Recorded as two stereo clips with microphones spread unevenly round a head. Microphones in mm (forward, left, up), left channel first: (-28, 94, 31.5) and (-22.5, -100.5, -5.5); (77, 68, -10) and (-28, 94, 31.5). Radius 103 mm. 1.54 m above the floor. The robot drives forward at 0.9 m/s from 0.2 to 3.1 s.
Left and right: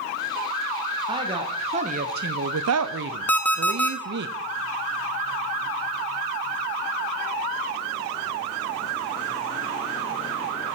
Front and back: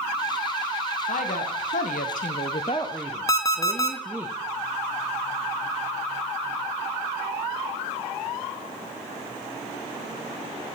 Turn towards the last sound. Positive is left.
turn(degrees=55)